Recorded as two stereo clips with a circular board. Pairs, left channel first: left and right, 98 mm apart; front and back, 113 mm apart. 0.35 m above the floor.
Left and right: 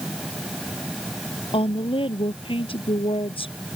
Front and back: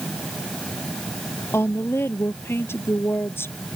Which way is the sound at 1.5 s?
70° left.